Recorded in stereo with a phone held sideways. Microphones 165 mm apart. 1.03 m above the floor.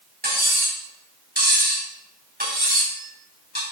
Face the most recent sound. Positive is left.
turn(degrees=-85)